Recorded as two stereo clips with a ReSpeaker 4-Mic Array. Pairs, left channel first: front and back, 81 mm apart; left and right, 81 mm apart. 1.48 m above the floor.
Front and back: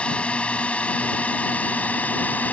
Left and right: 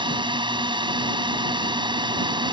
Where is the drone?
75° right; by 2.5 s 70° right.